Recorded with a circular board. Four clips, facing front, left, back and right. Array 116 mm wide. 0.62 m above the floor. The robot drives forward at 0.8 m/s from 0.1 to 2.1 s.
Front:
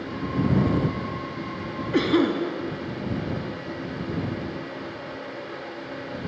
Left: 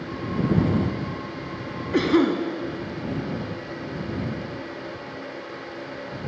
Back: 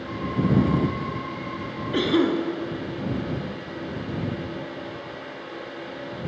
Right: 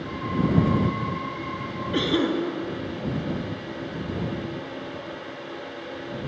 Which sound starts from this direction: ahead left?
A cough, at 1.9 s.